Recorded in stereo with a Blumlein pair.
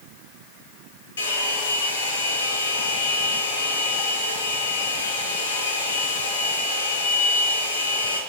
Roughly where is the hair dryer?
Left.